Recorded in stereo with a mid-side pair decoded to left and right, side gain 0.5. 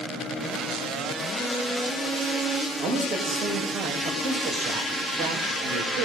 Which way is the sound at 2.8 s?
65° right.